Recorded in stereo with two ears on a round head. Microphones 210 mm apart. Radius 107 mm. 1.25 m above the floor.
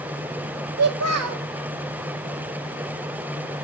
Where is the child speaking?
70° right (ahead or behind), 0.8 m.